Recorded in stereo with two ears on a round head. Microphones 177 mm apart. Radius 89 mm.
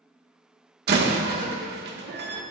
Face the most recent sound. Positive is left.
turn(degrees=-55)  # may be behind; listen again after turning